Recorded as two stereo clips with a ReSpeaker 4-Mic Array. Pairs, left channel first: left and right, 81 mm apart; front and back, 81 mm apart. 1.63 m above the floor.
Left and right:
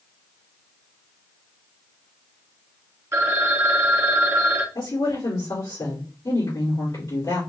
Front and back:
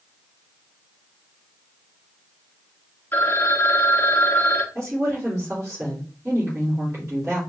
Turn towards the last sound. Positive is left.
turn(degrees=120)